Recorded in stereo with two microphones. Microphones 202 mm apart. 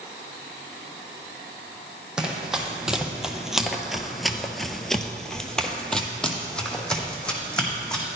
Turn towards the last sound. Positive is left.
turn(degrees=5)  # may be behind; listen again after turning